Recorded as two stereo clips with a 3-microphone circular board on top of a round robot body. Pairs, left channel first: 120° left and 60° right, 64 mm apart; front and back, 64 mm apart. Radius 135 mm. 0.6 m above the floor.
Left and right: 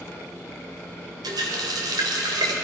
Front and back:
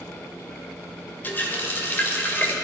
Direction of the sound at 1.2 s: 60° right.